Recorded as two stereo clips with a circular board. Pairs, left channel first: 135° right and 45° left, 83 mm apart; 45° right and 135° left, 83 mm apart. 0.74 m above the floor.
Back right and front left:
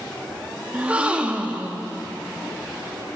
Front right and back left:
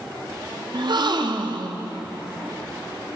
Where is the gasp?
115° left, 0.6 m.